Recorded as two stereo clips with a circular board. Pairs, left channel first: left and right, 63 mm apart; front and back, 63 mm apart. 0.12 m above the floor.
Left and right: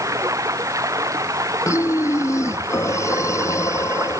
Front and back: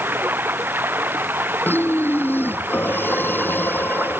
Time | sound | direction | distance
0.0 | running water | 125° right | ?
1.6 | breathing | 55° left | ?